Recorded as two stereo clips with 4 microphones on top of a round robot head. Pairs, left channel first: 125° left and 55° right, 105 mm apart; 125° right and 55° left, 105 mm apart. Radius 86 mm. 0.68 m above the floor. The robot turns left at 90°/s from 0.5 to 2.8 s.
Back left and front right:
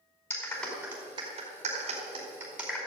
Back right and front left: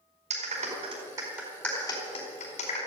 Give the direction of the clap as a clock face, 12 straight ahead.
10 o'clock.